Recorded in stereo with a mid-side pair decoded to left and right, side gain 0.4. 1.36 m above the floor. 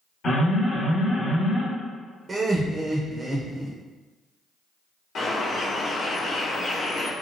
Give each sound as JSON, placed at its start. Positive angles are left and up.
{"t": 0.2, "sound": "an alarm", "azimuth_deg": 55, "distance_m": 1.1}
{"t": 2.3, "sound": "laughter", "azimuth_deg": -35, "distance_m": 0.5}
{"t": 5.2, "sound": "a bird", "azimuth_deg": 60, "distance_m": 0.9}